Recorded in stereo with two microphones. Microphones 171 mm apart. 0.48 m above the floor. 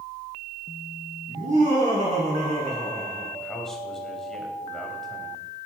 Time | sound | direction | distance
1.3 | laughter | 50° right (ahead or behind) | 5 m
3.4 | a man speaking | centre (ahead or behind) | 2.5 m